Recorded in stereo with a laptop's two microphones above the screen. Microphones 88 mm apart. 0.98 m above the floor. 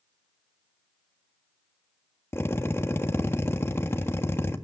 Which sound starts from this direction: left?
A drill, at 2.3 s.